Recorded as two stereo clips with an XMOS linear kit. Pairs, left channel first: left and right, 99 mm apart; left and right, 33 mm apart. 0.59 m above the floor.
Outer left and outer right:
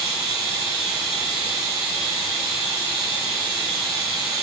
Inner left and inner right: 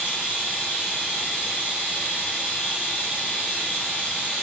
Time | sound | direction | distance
0.0 | running water | 65° left (ahead or behind) | 1.7 m